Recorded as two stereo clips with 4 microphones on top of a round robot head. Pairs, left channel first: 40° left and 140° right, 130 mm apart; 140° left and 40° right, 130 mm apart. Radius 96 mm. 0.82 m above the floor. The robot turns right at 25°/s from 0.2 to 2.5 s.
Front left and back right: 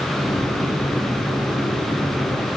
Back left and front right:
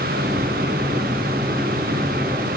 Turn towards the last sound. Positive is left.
No sound to turn to.